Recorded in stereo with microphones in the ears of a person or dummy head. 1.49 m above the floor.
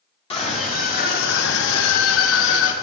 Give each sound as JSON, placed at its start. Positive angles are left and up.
{"t": 0.3, "sound": "a scream", "side_deg": 25, "distance_m": 1.6}